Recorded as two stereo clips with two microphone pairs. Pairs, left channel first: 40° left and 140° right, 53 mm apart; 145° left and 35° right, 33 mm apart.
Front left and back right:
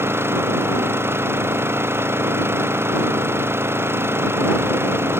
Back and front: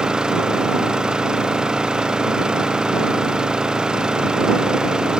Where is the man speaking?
No man speaking in this recording.